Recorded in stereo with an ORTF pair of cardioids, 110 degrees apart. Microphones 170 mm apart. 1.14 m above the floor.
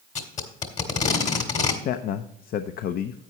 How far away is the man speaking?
About 0.6 m.